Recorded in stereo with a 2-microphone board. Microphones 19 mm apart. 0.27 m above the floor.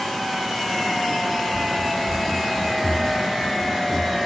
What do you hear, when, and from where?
1.5 s running footsteps: 65° right (ahead or behind), 0.5 m; by 4.2 s 10° right (ahead or behind), 1.6 m